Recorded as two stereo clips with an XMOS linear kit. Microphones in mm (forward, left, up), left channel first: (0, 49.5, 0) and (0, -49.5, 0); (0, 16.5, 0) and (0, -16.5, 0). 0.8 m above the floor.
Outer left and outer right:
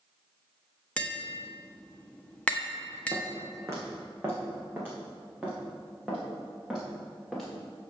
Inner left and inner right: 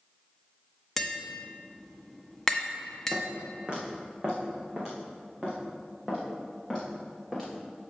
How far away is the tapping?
About 0.9 m.